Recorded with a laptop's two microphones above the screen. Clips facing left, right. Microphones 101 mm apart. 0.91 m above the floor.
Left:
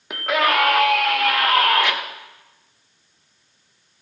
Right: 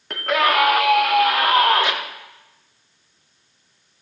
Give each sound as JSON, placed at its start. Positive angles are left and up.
{"t": 0.1, "sound": "a scream", "side_deg": 10, "distance_m": 2.0}